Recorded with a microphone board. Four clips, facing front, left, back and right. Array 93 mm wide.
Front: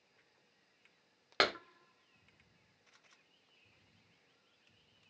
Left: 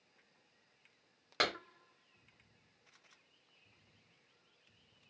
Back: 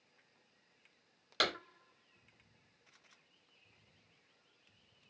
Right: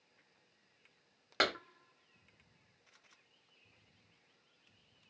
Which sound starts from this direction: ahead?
A clap, at 1.4 s.